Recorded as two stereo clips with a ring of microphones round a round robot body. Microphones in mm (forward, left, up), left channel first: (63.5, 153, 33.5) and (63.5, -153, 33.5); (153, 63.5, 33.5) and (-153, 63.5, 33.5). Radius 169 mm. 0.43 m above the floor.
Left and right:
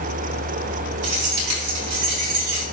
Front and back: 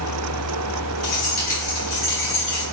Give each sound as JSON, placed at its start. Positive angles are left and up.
{"t": 1.0, "sound": "keys jangling", "azimuth_deg": -65, "distance_m": 3.0}